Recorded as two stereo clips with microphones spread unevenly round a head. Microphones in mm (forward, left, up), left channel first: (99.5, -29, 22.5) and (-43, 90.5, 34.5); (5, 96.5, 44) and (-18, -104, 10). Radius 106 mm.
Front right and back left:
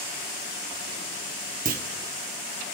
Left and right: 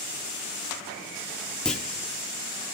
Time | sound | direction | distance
1.6 | a clunk | 160° left | 1.3 m